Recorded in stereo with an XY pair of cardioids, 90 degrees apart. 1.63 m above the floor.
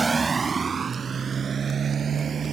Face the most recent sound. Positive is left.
turn(degrees=-55)